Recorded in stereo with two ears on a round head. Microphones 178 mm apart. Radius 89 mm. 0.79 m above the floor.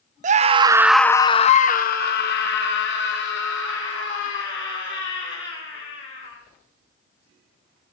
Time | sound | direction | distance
0.2 | a scream | 40° right (ahead or behind) | 0.6 m